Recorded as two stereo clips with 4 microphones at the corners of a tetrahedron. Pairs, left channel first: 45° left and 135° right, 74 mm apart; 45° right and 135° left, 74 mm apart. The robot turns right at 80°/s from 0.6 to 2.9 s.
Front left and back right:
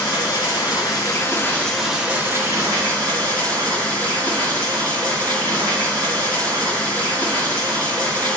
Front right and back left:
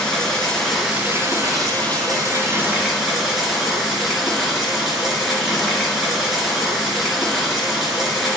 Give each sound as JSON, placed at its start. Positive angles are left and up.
{"t": 0.0, "sound": "running water", "azimuth_deg": 35, "distance_m": 4.0}